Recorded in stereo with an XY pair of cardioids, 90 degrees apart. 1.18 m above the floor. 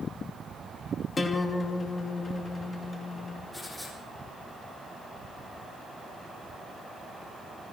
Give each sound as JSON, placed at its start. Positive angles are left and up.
{"t": 1.2, "sound": "a guitar", "azimuth_deg": 40, "distance_m": 2.5}
{"t": 3.5, "sound": "writing", "azimuth_deg": 15, "distance_m": 8.5}